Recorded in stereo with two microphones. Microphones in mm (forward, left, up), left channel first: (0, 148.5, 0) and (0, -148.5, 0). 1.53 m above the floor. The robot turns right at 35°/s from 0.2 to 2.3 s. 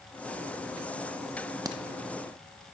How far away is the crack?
About 0.5 m.